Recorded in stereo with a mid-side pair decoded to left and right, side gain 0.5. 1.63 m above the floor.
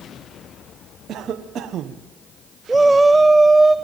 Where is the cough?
60° right, 1.1 m.